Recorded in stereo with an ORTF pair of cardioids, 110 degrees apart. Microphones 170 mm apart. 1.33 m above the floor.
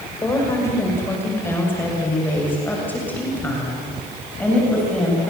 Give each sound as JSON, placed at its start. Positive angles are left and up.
{"t": 0.2, "sound": "a woman speaking", "azimuth_deg": 20, "distance_m": 5.5}